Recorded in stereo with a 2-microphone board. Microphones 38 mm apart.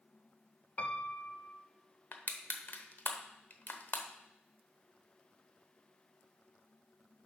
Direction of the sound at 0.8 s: 40° left (ahead or behind).